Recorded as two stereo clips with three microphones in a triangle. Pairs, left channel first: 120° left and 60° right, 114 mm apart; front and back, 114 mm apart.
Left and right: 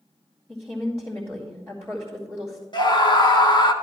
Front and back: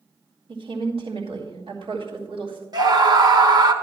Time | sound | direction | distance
0.5 | a woman speaking | 175° right | 2.5 m
2.7 | a scream | 145° left | 1.0 m